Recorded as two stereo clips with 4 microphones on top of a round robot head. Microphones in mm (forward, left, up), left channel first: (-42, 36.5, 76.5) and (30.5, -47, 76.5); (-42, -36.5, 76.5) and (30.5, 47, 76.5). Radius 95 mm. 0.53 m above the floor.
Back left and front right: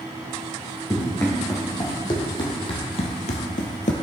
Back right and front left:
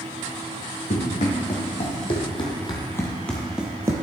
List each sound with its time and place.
0.9 s running footsteps: 165° right, 2.5 m; by 3.9 s 110° left, 0.9 m